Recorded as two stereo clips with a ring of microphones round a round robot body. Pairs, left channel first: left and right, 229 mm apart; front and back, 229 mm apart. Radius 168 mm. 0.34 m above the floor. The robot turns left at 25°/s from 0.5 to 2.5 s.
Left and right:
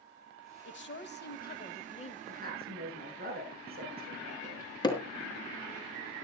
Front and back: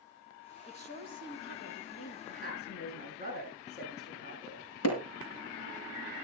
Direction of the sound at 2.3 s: 35° right.